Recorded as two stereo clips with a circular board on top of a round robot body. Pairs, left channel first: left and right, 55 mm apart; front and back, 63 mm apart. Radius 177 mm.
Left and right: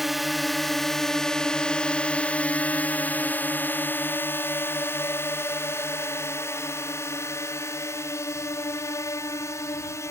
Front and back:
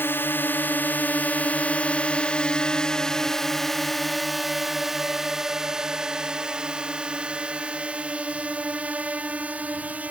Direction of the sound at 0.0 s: 5° right.